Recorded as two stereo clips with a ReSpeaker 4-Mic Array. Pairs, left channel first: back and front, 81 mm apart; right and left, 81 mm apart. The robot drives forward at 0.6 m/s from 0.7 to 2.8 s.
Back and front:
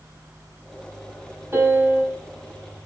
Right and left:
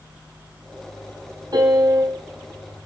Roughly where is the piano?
Ahead left.